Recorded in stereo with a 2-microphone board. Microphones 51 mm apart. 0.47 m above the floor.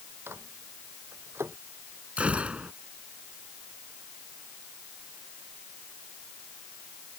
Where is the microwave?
55° right (ahead or behind).